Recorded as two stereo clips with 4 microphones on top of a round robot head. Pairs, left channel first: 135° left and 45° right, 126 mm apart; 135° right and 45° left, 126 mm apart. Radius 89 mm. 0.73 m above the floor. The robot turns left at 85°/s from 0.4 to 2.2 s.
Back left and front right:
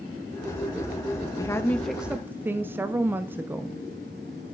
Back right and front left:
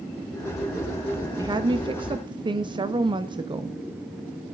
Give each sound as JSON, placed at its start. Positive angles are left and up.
{"t": 1.4, "sound": "a woman speaking", "azimuth_deg": 90, "distance_m": 0.7}